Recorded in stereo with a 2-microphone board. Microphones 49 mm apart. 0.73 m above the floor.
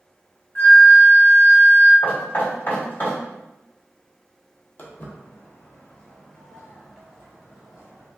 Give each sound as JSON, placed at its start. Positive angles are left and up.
{"t": 0.6, "sound": "a flute", "side_deg": 50, "distance_m": 1.0}
{"t": 2.0, "sound": "knocking", "side_deg": 40, "distance_m": 1.8}
{"t": 4.8, "sound": "footsteps", "side_deg": 40, "distance_m": 1.2}